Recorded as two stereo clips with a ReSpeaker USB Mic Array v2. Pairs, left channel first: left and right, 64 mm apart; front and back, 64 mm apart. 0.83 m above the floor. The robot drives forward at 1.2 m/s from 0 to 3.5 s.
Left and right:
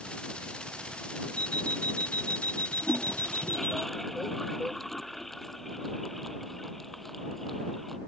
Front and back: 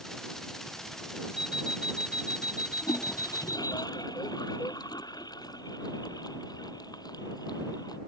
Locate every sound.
1.4 s an alarm clock: 100° right; by 3.8 s 120° right
2.8 s a toilet flushing: 5° left